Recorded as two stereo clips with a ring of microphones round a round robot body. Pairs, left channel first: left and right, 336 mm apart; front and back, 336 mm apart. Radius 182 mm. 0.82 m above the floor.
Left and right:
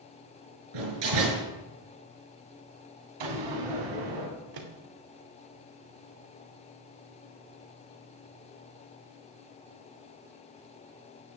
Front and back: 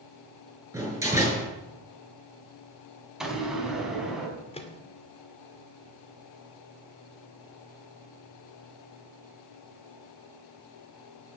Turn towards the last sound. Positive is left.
turn(degrees=-75)